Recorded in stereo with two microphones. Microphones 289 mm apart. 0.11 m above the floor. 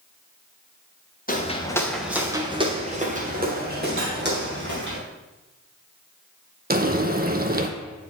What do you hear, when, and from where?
1.3 s footsteps: 30° left (ahead or behind), 1.2 m; by 5.0 s 40° right (ahead or behind), 4 m
4.0 s cutlery clinking: 50° right (ahead or behind), 2 m
6.7 s frying: 35° right (ahead or behind), 0.7 m